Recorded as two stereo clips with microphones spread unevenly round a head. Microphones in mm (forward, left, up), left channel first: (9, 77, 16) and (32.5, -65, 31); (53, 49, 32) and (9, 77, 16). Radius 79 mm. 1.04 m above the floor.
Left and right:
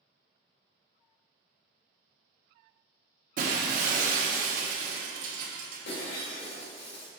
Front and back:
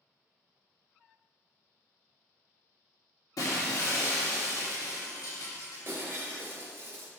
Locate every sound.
3.4 s breaking glass: 50° right, 1.1 m
5.8 s breaking glass: 95° left, 2.5 m